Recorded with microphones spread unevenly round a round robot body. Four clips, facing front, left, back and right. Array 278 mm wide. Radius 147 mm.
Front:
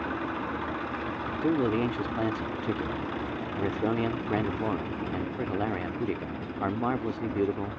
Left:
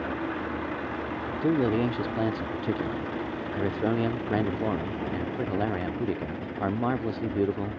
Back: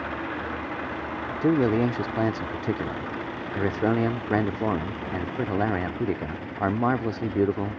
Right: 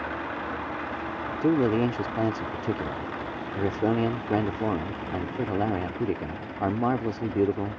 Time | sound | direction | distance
1.4 | a man speaking | 135° right | ?